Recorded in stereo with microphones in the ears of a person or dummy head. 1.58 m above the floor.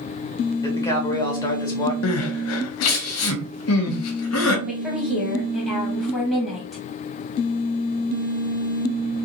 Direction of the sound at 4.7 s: 5° right (ahead or behind).